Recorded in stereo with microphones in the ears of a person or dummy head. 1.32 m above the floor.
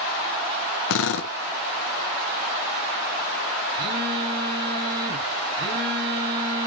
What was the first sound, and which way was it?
A drill, 70° left (ahead or behind).